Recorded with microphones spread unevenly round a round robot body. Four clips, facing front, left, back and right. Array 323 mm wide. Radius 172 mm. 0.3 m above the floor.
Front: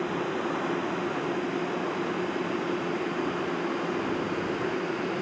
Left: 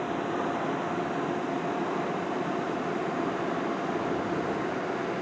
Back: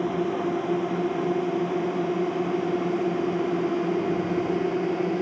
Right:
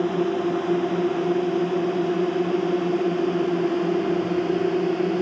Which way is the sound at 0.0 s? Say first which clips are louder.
Right 7 dB, back 4 dB; 115° right.